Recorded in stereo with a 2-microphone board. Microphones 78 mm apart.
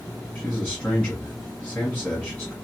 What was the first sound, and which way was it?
A man speaking, 20° left (ahead or behind).